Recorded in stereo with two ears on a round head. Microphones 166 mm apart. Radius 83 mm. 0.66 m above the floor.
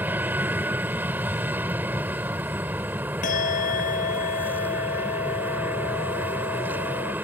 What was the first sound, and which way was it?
An aircraft, 10° right (ahead or behind).